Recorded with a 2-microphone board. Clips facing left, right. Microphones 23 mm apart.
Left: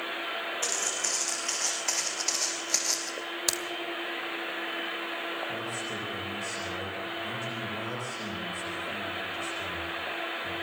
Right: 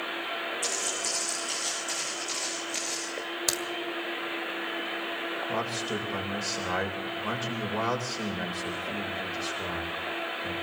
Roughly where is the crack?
Centre.